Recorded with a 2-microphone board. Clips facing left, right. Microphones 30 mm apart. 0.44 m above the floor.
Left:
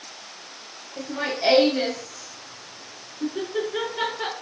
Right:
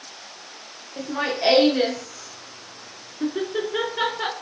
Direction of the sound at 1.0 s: 25° right (ahead or behind).